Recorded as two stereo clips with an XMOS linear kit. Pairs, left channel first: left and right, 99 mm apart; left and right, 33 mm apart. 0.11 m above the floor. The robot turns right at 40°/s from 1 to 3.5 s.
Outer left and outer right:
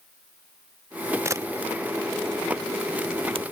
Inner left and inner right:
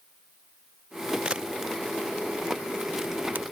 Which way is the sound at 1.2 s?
25° right (ahead or behind).